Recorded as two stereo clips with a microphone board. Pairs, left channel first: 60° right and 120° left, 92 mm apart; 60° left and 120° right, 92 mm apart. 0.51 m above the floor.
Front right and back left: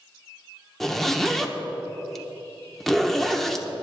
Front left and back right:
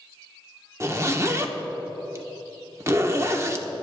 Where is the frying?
No frying in this recording.